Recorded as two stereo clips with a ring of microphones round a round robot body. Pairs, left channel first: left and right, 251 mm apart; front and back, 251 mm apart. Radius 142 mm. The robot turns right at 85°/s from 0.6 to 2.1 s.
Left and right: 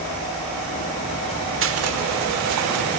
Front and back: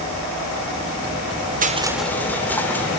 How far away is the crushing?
About 1.8 m.